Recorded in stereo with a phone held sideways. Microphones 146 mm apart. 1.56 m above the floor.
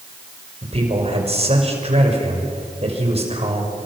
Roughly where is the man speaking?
Right.